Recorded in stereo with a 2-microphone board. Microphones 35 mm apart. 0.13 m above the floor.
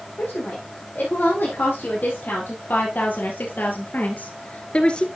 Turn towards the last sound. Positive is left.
turn(degrees=25)  # may be behind; listen again after turning